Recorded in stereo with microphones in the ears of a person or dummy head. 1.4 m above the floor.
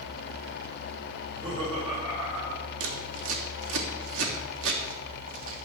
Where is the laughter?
35° right (ahead or behind), 6.5 m; by 2.7 s 25° right (ahead or behind), 7 m.